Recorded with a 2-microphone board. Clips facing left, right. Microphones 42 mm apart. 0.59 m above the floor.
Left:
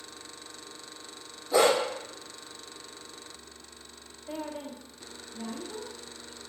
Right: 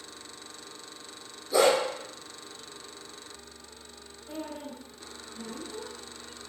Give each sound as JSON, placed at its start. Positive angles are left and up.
{"t": 1.5, "sound": "a dog barking", "side_deg": 45, "distance_m": 1.0}
{"t": 4.3, "sound": "a woman speaking", "side_deg": 30, "distance_m": 0.6}